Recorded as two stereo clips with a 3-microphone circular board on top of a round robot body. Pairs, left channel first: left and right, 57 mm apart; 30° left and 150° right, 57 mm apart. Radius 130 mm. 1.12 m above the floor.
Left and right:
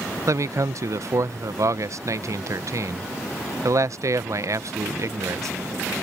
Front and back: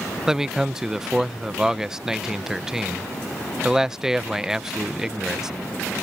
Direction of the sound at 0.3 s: 70° right.